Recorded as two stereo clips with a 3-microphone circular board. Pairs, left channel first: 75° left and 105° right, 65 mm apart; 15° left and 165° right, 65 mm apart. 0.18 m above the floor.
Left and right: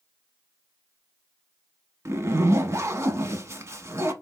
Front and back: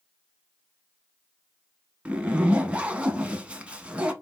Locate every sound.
2.0 s a zipper: 100° right, 0.6 m